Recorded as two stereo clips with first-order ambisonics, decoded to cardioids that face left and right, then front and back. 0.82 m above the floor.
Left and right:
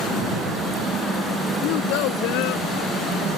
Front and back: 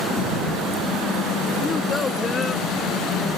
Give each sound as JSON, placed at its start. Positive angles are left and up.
{"t": 1.6, "sound": "a child speaking", "azimuth_deg": 70}